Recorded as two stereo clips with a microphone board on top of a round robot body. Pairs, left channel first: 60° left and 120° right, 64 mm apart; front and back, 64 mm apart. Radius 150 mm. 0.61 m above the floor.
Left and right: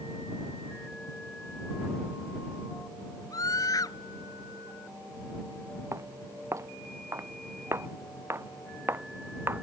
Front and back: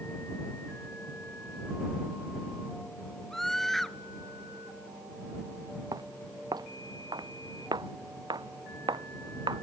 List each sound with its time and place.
3.3 s a scream: 85° left
5.9 s footsteps: 165° right; by 9.6 s 175° right